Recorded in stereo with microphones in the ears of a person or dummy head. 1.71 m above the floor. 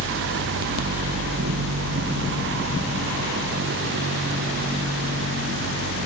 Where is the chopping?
I don't hear chopping.